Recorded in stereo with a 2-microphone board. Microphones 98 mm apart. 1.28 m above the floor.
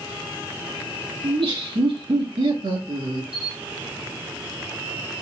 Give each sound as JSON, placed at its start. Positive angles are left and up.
{"t": 1.2, "sound": "laughter", "side_deg": -65, "distance_m": 2.0}
{"t": 3.3, "sound": "a camera shutter", "side_deg": -75, "distance_m": 3.0}